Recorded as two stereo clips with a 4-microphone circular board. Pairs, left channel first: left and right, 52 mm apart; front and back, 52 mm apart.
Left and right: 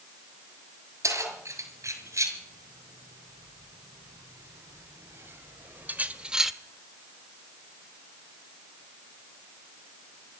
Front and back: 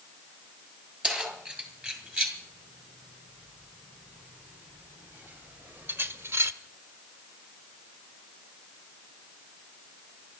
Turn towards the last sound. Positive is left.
turn(degrees=-175)